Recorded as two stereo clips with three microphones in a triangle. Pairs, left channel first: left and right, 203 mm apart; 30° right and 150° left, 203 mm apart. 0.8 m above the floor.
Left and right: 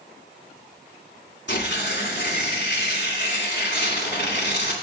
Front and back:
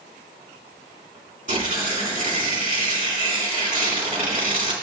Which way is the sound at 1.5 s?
105° left.